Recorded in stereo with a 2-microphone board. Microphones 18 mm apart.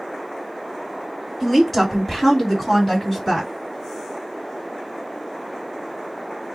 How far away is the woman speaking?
About 1.7 m.